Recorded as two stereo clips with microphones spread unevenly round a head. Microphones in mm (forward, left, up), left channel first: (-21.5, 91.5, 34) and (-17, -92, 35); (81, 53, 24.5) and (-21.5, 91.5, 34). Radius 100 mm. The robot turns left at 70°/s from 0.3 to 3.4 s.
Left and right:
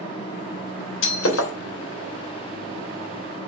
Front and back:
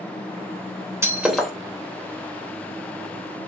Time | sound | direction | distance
1.0 | breaking glass | 100° left | 3 m